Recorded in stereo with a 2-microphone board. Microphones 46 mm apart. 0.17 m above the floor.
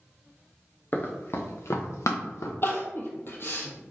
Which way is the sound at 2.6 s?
55° left (ahead or behind).